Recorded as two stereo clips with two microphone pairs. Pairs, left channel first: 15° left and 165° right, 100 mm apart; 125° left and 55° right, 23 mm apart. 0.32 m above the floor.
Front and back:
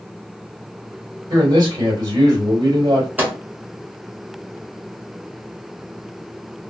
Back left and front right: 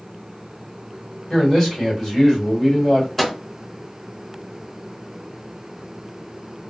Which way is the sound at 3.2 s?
140° left.